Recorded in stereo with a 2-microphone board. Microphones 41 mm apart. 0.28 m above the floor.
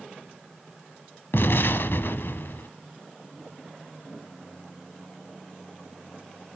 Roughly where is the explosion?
Left.